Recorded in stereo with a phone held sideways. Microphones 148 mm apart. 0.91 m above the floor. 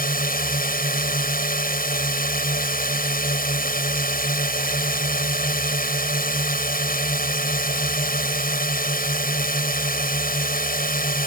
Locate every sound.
0.0 s a drone: 75° left (ahead or behind)